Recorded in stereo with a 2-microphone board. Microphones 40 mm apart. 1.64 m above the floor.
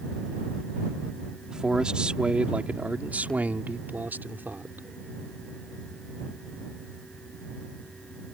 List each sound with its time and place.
1.5 s a man speaking: 20° right (ahead or behind); by 4.9 s 65° right (ahead or behind)